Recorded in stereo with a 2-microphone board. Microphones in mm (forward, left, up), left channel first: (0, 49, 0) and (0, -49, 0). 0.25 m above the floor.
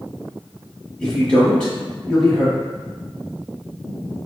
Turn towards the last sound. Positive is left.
turn(degrees=10)  # may be behind; listen again after turning